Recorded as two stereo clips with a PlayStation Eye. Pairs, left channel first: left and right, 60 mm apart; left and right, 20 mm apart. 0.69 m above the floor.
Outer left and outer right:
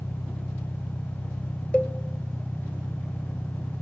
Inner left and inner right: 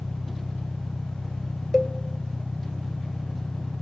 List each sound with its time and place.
0.0 s an engine running: 15° left (ahead or behind), 1.9 m
1.7 s a cowbell: 15° left (ahead or behind), 0.9 m